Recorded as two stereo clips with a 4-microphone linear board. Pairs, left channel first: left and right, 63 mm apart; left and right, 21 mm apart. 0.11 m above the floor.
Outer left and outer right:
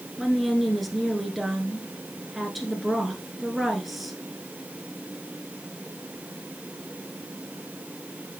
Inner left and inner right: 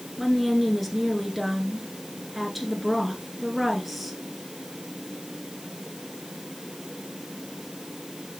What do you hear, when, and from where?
0.2 s a woman speaking: centre (ahead or behind), 1.3 m